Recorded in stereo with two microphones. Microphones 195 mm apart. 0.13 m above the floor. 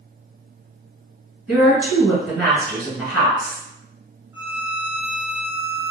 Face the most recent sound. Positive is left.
turn(degrees=-15)  # may be behind; listen again after turning